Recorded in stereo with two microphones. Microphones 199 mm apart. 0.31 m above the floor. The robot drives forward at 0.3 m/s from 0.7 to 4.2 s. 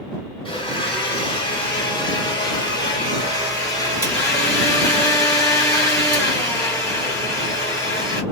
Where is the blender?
25° left (ahead or behind), 1.5 m; by 8.2 s 15° left (ahead or behind), 2 m.